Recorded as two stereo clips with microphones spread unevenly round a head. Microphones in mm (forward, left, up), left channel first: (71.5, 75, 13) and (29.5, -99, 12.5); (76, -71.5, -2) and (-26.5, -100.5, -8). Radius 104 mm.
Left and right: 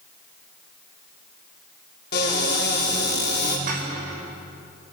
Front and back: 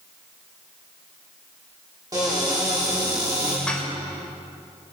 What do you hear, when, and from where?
2.1 s a cupboard door: 125° left, 5 m
3.7 s dishes clattering: 65° right, 4.5 m